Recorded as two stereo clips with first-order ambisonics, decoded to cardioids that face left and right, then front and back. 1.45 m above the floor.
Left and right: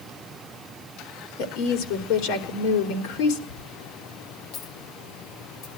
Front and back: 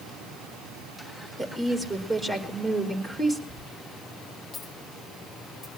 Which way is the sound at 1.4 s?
90° left.